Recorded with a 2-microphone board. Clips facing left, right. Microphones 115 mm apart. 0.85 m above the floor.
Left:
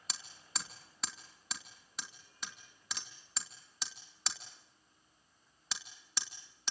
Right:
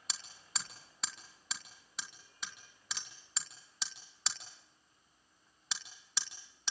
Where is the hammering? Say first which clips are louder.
Even; centre (ahead or behind), 2.5 m.